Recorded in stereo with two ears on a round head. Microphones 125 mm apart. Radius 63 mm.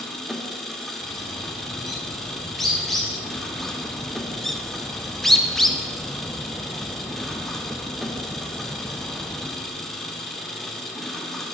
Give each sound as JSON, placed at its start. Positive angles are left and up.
{"t": 0.0, "sound": "an engine running", "side_deg": 0, "distance_m": 0.9}
{"t": 1.0, "sound": "a bird", "side_deg": 5, "distance_m": 2.0}
{"t": 3.5, "sound": "a bird", "side_deg": 0, "distance_m": 0.5}